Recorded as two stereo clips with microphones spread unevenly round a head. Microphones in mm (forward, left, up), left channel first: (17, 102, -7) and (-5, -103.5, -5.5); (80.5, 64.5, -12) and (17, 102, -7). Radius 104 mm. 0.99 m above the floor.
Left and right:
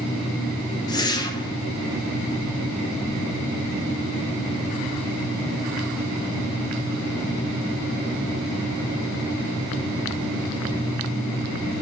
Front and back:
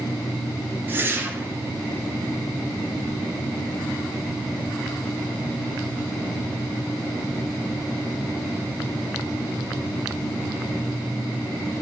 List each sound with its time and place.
0.9 s a whoosh: 125° left, 0.6 m